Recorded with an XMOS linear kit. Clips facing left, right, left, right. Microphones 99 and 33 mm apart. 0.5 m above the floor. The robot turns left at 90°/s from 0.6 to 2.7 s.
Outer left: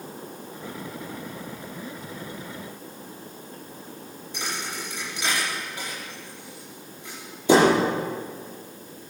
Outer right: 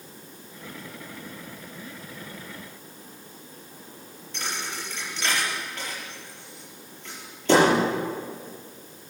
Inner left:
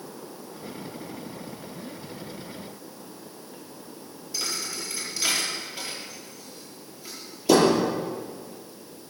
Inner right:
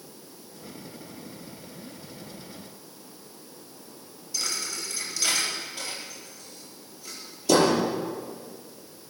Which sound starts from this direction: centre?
A thud, at 4.3 s.